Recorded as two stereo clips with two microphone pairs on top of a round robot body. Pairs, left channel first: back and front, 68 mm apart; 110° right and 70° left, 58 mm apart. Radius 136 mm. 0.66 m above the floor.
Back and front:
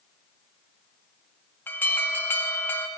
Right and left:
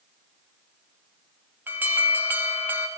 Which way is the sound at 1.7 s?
130° left.